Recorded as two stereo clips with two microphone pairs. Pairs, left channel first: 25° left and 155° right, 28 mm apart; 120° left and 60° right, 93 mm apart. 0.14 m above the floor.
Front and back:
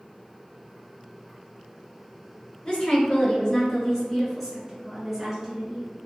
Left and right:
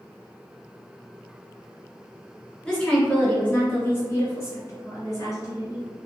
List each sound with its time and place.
2.6 s a woman speaking: 45° left, 1.9 m; by 5.9 s 140° left, 1.9 m